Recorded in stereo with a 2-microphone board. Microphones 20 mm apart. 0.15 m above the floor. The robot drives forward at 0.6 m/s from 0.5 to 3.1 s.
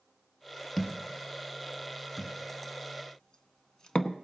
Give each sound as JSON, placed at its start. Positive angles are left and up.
{"t": 0.8, "sound": "a thud", "side_deg": 15, "distance_m": 1.6}